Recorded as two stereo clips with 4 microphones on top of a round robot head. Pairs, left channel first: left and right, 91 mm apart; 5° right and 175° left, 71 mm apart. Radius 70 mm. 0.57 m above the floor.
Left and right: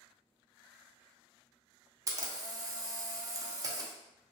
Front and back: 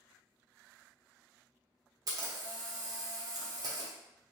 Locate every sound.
2.1 s a camera shutter: 140° right, 0.6 m